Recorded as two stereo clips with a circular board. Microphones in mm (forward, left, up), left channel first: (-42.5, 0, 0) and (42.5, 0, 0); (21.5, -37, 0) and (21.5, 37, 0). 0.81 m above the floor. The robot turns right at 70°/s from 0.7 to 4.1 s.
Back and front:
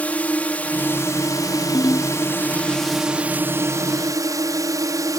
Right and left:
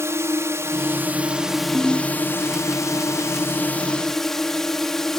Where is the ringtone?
175° left; by 2.1 s 160° right.